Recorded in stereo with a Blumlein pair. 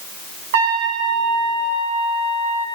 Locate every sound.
0.5 s a trumpet: 55° right, 1.6 m